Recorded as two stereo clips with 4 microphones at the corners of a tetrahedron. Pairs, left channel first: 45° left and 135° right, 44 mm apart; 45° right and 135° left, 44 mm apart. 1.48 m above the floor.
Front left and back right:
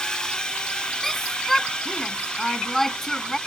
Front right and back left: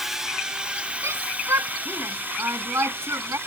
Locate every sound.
0.0 s a drone: 70° left; by 3.5 s 115° left
1.0 s a shout: 130° left